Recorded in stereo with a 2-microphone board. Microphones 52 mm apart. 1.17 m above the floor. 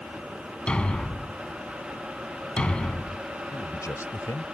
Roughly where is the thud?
Left.